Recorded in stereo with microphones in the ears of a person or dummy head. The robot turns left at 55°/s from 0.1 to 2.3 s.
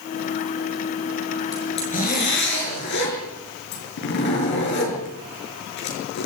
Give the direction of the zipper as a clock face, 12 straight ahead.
7 o'clock.